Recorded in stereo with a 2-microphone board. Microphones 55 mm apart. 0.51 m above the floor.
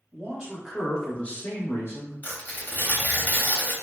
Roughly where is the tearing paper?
Left.